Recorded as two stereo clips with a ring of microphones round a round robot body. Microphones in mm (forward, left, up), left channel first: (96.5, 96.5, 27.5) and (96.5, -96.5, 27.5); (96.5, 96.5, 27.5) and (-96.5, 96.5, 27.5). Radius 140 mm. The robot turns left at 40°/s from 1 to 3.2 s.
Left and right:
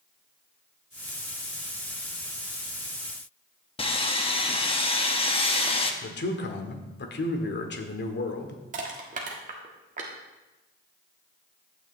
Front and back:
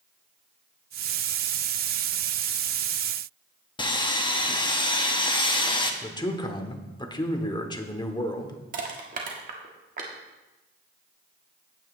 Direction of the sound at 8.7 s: 140° right.